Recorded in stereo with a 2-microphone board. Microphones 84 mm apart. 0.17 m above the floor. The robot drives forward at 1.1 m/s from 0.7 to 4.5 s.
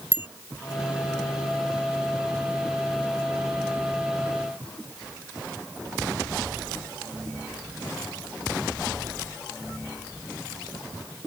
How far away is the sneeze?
No sneeze in this recording.